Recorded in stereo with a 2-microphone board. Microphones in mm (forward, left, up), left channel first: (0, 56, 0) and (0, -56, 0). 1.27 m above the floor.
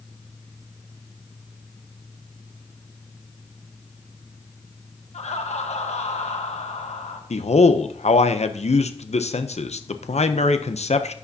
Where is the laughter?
80° left, 1.3 m.